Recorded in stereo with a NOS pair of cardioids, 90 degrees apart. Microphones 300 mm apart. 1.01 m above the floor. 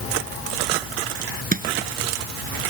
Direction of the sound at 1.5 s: 30° right.